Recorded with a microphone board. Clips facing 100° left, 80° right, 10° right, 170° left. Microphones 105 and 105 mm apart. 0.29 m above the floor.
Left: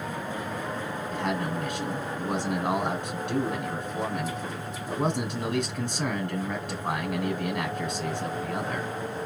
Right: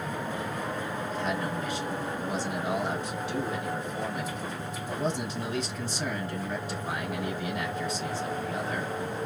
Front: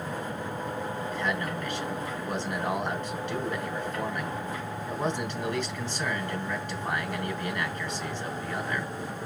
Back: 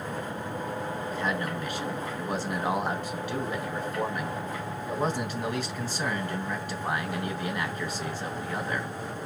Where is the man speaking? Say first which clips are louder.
Left 3 dB, back 1 dB; 90° left, 2.5 m.